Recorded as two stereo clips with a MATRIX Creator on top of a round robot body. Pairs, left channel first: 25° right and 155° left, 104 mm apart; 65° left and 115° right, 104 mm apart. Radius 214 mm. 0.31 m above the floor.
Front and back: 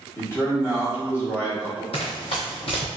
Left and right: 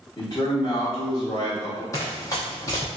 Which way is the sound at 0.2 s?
30° left.